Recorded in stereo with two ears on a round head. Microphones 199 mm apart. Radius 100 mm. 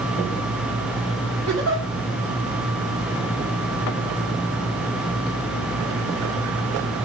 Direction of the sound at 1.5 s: 60° right (ahead or behind).